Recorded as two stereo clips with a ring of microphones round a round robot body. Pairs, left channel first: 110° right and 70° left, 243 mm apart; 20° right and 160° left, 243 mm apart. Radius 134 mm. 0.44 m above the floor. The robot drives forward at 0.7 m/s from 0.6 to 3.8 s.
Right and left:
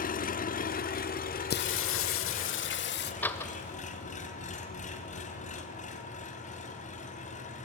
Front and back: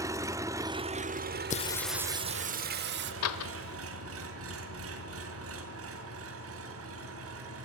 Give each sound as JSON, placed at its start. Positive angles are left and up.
{"t": 0.0, "sound": "an engine running", "azimuth_deg": -135, "distance_m": 0.8}
{"t": 1.5, "sound": "singing", "azimuth_deg": -75, "distance_m": 0.5}
{"t": 3.2, "sound": "a door slam", "azimuth_deg": -30, "distance_m": 1.3}